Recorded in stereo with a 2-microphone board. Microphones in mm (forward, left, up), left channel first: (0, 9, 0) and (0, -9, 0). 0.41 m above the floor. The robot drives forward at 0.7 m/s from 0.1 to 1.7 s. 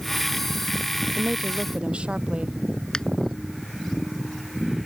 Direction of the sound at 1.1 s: 75° right (ahead or behind).